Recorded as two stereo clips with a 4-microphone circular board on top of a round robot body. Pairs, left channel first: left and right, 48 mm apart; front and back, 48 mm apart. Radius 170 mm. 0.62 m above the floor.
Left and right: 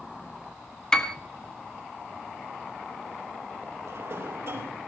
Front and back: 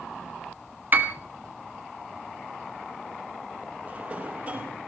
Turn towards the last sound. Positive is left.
turn(degrees=-125)